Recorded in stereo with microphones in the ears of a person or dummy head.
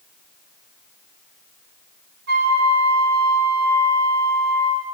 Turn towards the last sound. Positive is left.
turn(degrees=-55)  # may be behind; listen again after turning